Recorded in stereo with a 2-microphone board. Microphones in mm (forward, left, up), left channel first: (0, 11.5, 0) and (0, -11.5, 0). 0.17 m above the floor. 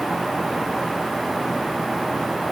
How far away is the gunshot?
No gunshot in this recording.